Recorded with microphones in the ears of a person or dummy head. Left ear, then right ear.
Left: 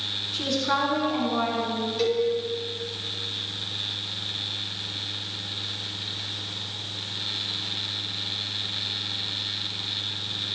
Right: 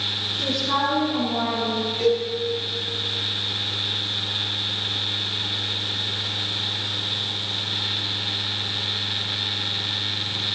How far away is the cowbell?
About 7 m.